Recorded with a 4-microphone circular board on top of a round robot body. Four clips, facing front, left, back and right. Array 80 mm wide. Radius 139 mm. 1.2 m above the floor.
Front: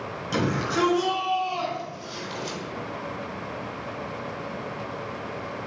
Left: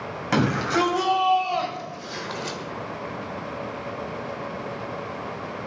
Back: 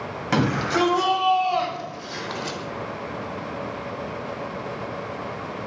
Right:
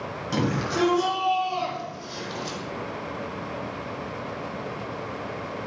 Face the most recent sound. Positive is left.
turn(degrees=130)